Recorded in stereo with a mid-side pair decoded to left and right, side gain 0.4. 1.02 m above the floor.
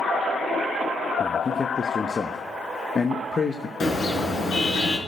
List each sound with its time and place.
1.2 s a man speaking: 40° left, 0.9 m
3.8 s a car horn: 50° left, 5 m